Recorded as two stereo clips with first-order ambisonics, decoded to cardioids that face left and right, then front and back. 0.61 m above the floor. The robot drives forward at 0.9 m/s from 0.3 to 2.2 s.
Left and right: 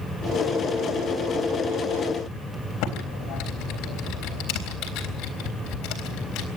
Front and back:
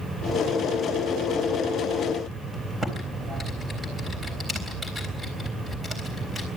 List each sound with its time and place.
2.8 s typing on a keyboard: 100° left, 3.5 m